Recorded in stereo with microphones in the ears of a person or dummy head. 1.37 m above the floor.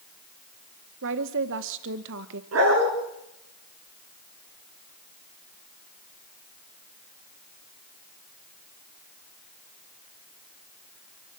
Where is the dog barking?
80° right, 7 m.